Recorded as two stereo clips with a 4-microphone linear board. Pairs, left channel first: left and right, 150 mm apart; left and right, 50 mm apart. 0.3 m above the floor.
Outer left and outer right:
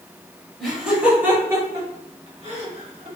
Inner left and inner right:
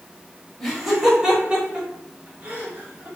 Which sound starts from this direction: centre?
Laughter, at 0.6 s.